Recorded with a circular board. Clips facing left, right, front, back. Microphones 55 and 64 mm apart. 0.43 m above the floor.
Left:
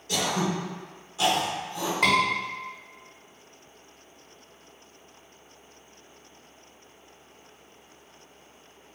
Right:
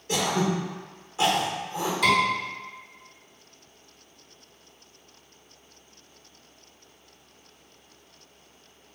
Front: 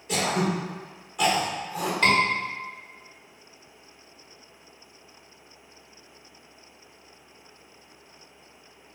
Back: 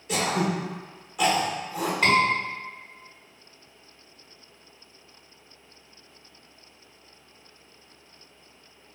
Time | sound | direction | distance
0.1 | throat clearing | 100° right | 1.0 m
2.0 | a scream | 105° left | 1.7 m